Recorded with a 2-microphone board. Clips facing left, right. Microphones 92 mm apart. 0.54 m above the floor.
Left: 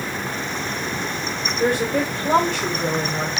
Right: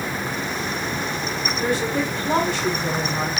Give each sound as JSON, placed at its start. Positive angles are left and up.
{"t": 1.6, "sound": "a woman speaking", "side_deg": 55, "distance_m": 1.7}